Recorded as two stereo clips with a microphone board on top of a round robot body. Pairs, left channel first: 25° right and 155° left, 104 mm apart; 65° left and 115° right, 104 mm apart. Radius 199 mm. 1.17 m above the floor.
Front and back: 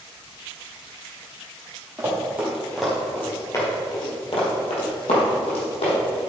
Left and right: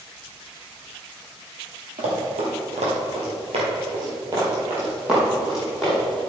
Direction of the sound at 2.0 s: 135° right.